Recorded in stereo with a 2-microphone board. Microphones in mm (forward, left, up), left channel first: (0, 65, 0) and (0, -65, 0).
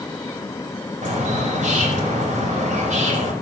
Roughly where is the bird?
Right.